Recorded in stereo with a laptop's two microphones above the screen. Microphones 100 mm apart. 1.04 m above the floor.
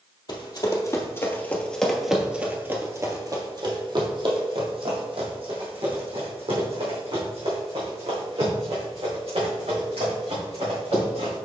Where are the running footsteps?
45° left (ahead or behind), 1.4 m; by 11.3 s 80° right, 5.5 m.